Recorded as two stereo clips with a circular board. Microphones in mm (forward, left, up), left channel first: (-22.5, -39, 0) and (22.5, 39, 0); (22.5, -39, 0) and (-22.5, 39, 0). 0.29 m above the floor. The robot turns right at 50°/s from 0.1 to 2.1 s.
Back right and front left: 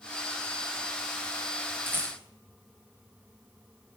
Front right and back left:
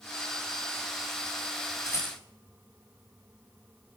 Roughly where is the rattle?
Ahead.